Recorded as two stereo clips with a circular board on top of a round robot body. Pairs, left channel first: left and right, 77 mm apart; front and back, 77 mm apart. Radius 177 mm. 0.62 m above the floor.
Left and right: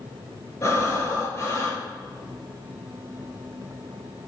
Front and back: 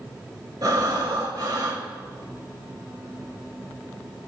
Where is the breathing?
140° left, 4 m.